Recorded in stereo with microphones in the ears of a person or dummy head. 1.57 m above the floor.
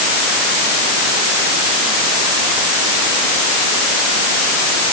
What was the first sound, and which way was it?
Only background noise.